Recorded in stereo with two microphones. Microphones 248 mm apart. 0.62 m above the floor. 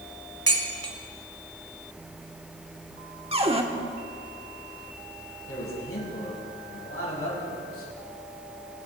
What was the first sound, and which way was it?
Dishes clattering, 80° right.